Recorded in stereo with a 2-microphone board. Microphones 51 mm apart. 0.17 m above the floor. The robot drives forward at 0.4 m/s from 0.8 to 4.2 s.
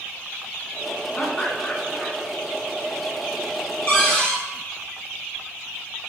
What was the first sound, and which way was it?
Laughter, 15° left (ahead or behind).